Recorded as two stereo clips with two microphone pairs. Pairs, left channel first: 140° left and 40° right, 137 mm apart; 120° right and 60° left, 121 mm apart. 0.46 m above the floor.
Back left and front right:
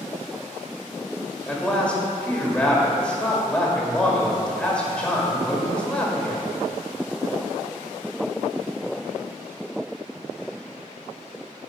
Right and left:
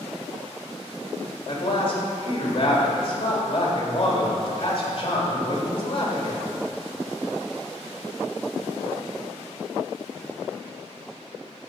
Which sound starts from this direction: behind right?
A man speaking, at 1.5 s.